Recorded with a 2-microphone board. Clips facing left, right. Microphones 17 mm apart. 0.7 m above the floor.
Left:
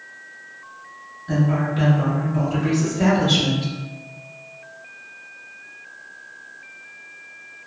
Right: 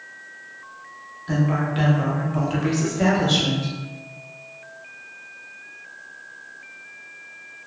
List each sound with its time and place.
1.3 s a woman speaking: 75° right (ahead or behind), 1.7 m; by 3.7 s 30° left (ahead or behind), 1.1 m